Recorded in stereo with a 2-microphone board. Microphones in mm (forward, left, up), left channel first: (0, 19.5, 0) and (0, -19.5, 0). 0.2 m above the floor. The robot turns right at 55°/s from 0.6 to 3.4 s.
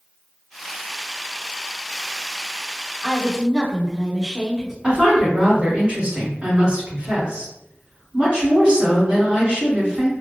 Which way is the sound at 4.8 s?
35° right (ahead or behind).